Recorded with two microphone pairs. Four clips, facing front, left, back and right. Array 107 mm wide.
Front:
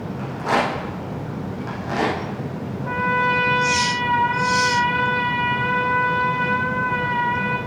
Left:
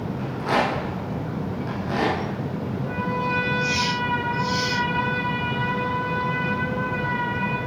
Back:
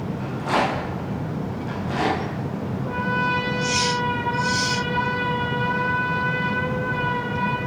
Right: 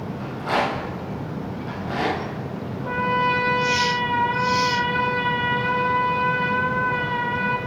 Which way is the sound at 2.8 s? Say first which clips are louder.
Right 6 dB, front 4 dB; 40° right.